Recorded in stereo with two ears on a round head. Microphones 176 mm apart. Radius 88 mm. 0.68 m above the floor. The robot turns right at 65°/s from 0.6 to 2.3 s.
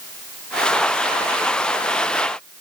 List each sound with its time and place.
Only background noise.